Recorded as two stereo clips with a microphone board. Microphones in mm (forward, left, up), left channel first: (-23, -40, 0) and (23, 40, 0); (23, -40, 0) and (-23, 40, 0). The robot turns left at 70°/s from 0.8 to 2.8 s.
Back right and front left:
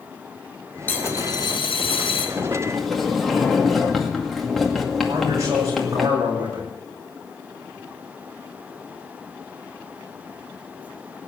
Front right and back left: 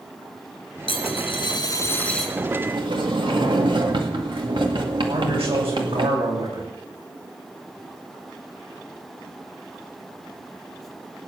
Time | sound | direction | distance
0.9 | a dropped coin | 50° right | 3 m
2.4 | a sliding door | straight behind | 2 m
5.1 | a man speaking | 110° left | 8 m